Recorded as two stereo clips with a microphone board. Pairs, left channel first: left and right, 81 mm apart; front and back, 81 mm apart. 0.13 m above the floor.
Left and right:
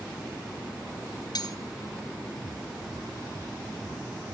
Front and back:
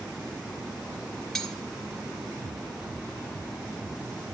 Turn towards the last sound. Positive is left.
turn(degrees=85)